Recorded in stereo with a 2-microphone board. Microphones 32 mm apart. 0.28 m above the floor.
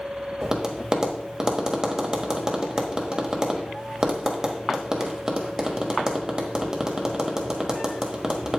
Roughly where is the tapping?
Right.